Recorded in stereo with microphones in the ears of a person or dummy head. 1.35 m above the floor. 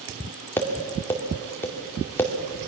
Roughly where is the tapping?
Centre.